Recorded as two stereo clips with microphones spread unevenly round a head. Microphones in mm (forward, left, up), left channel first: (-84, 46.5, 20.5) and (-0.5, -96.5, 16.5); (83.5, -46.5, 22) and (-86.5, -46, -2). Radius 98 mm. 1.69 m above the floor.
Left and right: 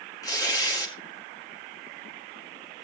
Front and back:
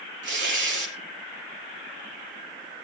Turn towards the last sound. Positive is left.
turn(degrees=-170)